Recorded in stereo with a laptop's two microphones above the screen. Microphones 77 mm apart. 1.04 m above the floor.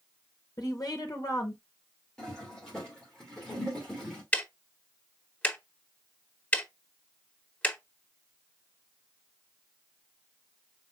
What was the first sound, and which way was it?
A woman speaking, 50° left (ahead or behind).